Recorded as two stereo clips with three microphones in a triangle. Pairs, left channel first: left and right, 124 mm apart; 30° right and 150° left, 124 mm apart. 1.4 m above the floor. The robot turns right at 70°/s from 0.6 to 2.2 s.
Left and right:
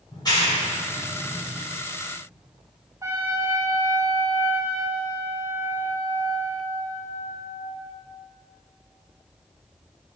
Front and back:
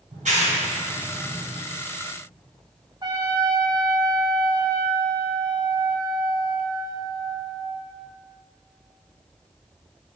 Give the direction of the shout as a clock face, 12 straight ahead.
No shout in this recording.